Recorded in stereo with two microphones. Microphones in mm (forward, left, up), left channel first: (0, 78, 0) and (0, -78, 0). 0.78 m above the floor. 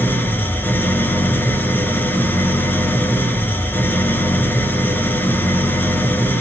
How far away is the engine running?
About 5 m.